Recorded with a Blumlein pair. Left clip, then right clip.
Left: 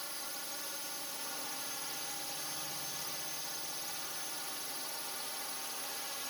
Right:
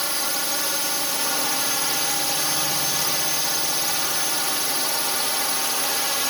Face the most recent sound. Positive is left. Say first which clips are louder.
# right 18 dB
turn(degrees=-40)